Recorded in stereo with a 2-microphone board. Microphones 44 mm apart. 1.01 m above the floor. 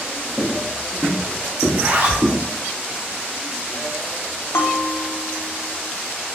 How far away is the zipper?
About 0.6 m.